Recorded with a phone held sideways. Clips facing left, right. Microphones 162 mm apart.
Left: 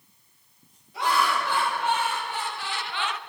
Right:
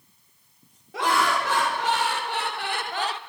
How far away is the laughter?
About 3 m.